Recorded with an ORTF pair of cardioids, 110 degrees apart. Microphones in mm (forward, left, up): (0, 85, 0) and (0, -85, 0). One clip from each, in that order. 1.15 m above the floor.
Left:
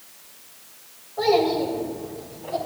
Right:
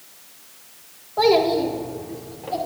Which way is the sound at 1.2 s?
60° right.